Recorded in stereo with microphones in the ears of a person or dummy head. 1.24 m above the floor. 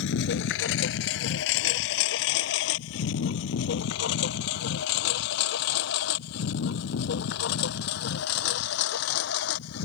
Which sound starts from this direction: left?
A lawn mower, at 0.0 s.